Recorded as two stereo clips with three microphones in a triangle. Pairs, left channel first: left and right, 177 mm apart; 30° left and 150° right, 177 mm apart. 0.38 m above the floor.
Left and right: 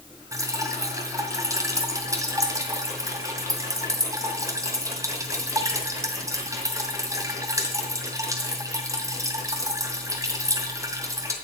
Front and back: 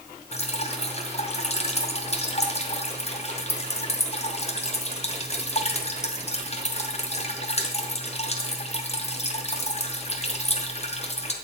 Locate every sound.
0.3 s dripping: 20° right, 2 m